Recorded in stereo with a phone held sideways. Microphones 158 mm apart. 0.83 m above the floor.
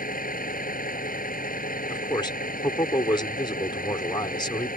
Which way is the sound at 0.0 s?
65° left (ahead or behind).